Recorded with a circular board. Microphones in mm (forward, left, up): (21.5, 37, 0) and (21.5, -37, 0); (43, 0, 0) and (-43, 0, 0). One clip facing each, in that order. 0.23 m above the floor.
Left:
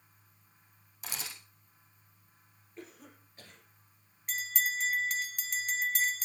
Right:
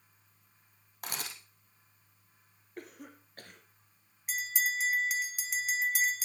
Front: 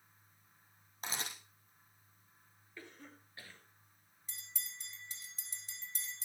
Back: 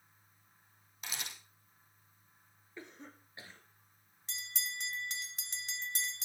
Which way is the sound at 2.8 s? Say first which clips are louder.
Right 3 dB, back 3 dB; 115° right.